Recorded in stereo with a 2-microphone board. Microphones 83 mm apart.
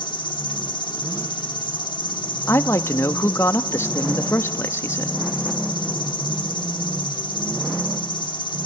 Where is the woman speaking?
35° left (ahead or behind), 0.7 m.